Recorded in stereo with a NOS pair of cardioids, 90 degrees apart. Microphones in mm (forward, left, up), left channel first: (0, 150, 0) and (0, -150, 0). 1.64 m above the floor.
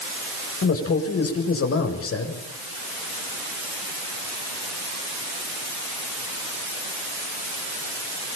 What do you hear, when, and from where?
0.6 s a man speaking: 50° left, 7.5 m